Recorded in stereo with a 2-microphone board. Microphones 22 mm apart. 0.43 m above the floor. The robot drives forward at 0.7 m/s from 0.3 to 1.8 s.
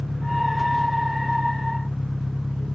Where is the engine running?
25° left (ahead or behind).